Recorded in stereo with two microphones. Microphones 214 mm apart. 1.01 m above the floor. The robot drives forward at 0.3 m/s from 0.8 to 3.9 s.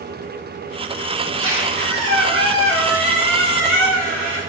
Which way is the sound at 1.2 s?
80° left.